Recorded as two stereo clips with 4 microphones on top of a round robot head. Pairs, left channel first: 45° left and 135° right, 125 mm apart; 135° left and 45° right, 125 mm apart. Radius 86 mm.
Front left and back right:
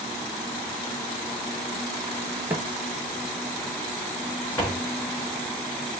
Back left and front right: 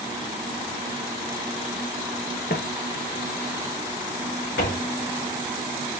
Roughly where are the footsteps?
Behind left.